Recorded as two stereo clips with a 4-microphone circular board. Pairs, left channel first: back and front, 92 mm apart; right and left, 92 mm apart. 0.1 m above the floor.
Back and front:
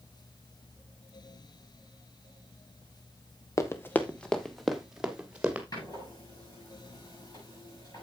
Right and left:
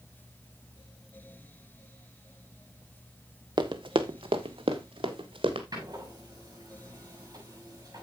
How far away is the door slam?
About 7 m.